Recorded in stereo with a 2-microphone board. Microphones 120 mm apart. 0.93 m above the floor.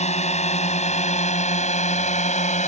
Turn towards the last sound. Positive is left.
turn(degrees=75)  # may be behind; listen again after turning